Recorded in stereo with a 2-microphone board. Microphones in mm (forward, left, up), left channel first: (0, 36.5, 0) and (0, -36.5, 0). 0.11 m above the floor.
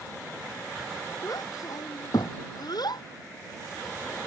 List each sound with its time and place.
1.2 s a child speaking: 55° left (ahead or behind); by 3.0 s 75° left (ahead or behind)